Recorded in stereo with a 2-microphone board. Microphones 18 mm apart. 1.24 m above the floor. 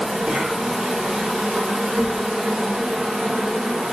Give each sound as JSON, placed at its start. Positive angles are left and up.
{"t": 0.0, "sound": "an insect", "side_deg": -70, "distance_m": 0.7}